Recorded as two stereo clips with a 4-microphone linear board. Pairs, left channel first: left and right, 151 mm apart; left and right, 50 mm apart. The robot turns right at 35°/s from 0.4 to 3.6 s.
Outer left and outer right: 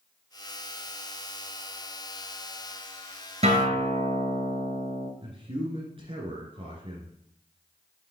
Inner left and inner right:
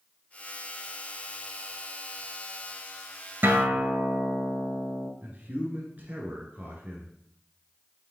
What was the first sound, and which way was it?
A guitar, 45° right (ahead or behind).